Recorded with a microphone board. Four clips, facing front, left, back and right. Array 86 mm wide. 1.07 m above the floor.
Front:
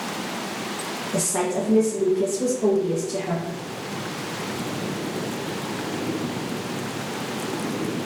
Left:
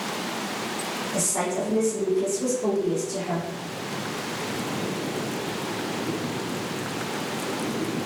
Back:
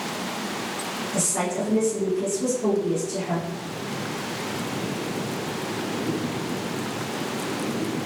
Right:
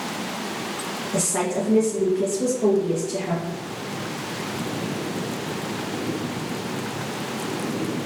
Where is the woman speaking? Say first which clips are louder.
Right 3 dB, front 3 dB; 40° right, 0.9 m.